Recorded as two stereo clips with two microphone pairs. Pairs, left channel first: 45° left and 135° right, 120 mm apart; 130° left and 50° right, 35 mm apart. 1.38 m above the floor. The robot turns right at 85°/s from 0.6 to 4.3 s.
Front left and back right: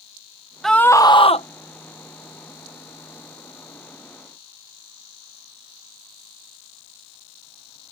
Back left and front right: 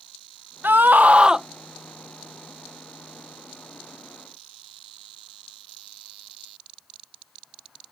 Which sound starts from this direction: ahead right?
A scream, at 0.6 s.